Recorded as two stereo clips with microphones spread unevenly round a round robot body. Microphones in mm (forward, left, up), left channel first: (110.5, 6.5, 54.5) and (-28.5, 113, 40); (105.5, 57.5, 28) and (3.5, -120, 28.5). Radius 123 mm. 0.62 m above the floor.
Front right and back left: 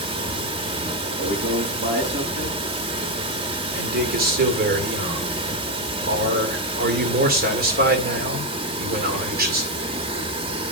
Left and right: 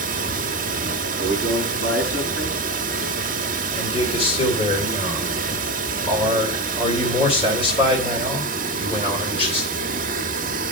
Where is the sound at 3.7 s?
125° left, 2.5 m.